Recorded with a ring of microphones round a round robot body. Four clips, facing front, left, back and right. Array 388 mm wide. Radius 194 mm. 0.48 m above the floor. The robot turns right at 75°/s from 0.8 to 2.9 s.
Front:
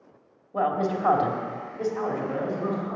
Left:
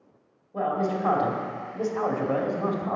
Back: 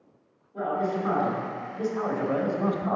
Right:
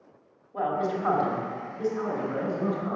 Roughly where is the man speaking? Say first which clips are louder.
Left 1 dB, front 2 dB; ahead.